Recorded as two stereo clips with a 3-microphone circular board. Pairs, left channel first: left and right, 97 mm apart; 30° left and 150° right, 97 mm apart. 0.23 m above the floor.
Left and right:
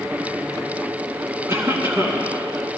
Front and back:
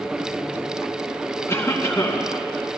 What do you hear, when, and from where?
1.5 s a cough: 30° right, 2.5 m